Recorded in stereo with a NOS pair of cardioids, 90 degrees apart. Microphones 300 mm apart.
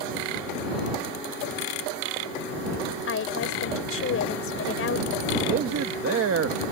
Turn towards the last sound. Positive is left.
turn(degrees=-50)